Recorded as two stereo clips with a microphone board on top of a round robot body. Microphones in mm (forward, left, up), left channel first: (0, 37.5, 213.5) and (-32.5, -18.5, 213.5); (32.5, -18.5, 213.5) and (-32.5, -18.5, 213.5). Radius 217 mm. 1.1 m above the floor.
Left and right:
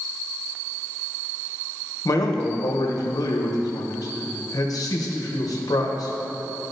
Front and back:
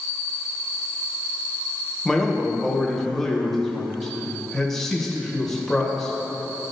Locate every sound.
2.0 s a man speaking: 85° left, 1.0 m